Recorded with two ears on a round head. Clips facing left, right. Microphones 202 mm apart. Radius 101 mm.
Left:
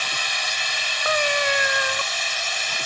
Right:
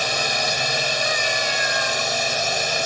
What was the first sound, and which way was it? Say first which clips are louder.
A drone: right 9 dB; 40° right (ahead or behind).